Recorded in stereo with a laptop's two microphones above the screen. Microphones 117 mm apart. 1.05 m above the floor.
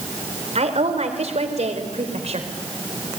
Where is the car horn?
No car horn in this recording.